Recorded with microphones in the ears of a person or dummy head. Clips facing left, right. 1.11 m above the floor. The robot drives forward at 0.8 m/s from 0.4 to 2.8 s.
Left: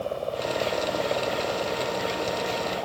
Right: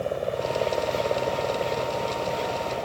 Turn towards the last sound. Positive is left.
turn(degrees=-20)  # may be behind; listen again after turning